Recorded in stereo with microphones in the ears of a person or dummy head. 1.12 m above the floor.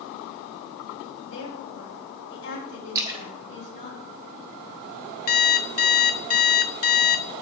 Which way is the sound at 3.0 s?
20° right (ahead or behind).